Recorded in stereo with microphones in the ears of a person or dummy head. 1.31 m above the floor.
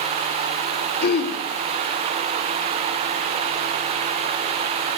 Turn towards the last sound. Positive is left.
turn(degrees=50)  # may be behind; listen again after turning